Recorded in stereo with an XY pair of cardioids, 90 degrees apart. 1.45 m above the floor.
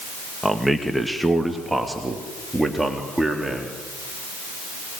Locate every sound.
0.4 s a man speaking: straight ahead, 2.5 m; by 3.8 s 10° right, 4 m